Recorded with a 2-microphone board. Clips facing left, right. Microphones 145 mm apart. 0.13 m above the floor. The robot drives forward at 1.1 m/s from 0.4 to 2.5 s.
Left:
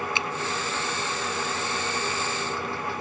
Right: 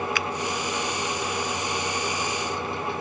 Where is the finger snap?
30° left (ahead or behind).